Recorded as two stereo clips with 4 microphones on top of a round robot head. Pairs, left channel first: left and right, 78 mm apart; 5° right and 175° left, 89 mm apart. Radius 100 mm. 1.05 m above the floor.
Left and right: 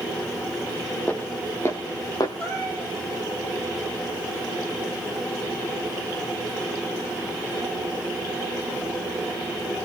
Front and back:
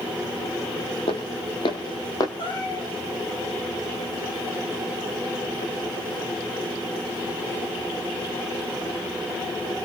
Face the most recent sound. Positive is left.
turn(degrees=10)